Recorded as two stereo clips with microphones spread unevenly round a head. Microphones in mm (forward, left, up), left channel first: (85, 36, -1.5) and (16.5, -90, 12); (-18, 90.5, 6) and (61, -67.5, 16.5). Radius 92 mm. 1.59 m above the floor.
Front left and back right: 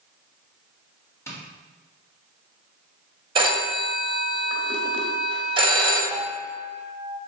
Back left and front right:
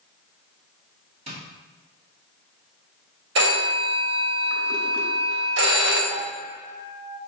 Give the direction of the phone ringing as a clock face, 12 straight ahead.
2 o'clock.